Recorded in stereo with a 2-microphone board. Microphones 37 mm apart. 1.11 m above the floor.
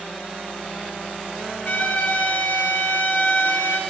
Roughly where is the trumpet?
Left.